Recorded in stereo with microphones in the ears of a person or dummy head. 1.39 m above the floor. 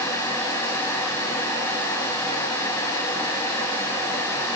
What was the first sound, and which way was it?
Only background noise.